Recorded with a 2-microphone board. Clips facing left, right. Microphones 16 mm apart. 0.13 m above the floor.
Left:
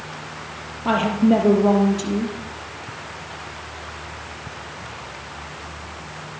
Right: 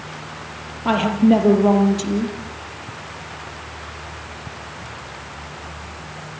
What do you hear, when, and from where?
0.8 s a woman speaking: 10° right (ahead or behind), 4 m